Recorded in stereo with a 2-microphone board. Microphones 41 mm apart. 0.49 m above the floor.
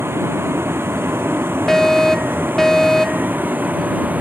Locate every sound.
0.0 s a vehicle: 80° right; by 4.2 s 45° right (ahead or behind)
1.7 s a fire alarm: 10° left (ahead or behind)